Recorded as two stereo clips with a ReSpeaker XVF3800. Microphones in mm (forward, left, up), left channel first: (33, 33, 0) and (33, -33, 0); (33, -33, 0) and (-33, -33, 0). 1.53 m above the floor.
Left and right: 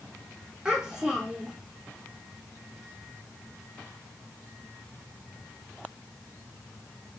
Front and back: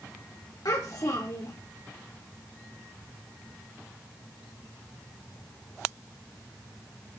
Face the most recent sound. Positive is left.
turn(degrees=-10)